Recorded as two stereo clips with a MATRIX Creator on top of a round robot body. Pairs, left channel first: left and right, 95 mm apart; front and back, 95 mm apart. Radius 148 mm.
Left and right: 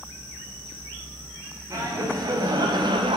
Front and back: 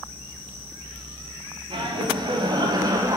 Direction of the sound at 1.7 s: 150° right.